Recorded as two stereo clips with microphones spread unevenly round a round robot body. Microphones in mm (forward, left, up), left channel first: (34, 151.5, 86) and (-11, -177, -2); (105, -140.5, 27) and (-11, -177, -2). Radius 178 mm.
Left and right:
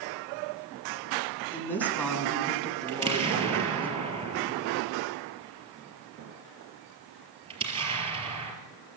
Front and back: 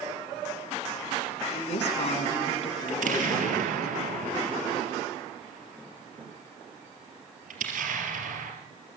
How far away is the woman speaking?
About 6 m.